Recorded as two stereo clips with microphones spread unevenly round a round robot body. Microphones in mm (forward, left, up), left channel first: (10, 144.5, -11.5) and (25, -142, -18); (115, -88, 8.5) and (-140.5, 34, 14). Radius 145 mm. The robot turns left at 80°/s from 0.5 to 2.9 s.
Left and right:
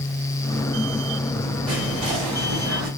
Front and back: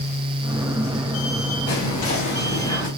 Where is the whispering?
15° right, 1.5 m; by 2.9 s 115° right, 1.5 m.